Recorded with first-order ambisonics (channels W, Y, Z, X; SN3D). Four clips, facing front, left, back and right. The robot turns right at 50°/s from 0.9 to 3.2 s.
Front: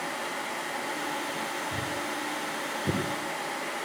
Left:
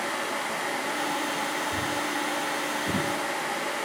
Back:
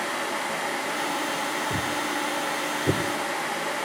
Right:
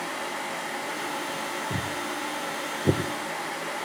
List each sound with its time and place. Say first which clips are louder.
1.7 s footsteps: left 2 dB, back 5 dB; 155° right, 3.5 m; by 3.9 s 105° right, 2.5 m